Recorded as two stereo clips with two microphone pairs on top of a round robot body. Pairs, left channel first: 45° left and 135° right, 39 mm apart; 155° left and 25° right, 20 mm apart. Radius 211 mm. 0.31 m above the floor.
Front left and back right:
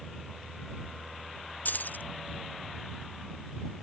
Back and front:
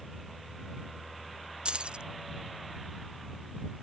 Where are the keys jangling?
5° left.